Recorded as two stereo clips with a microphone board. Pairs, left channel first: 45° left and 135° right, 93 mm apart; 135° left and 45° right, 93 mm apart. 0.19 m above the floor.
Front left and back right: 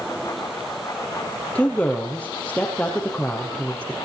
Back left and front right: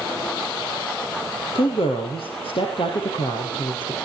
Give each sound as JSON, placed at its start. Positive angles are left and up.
{"t": 1.6, "sound": "a woman speaking", "azimuth_deg": 120, "distance_m": 5.0}